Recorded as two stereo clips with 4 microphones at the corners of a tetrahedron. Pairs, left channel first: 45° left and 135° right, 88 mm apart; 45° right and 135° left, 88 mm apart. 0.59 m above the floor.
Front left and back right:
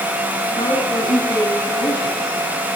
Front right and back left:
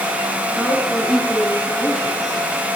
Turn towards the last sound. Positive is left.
turn(degrees=35)